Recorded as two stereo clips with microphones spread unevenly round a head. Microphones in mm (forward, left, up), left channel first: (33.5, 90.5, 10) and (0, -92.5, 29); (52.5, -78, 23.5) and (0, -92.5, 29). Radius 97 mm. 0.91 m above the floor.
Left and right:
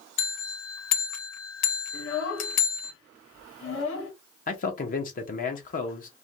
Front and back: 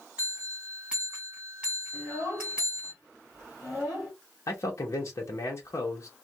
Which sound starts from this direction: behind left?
A bell, at 0.2 s.